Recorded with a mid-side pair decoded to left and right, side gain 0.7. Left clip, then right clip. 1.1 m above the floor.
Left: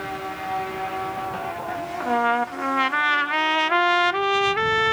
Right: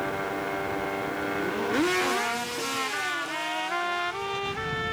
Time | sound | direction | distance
2.0 | a trumpet | 45° left | ?